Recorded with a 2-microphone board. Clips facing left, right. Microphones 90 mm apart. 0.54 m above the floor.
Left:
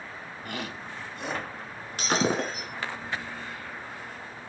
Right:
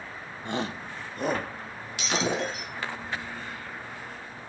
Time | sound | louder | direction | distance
0.5 | a shout | right 6 dB | 25° right (ahead or behind) | 1.0 m
2.0 | breaking glass | left 2 dB | 45° left (ahead or behind) | 3.5 m